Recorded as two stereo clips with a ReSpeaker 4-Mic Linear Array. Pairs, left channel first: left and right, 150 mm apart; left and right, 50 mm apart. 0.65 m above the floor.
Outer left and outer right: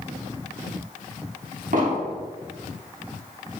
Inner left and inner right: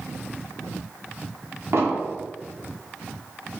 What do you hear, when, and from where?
1.7 s an explosion: 60° right (ahead or behind), 1.0 m